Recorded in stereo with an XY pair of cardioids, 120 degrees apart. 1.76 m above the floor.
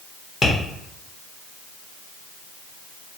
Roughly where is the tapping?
Ahead left.